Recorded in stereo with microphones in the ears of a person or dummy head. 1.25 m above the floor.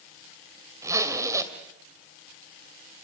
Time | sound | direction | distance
0.8 | a zipper | 20° right (ahead or behind) | 2 m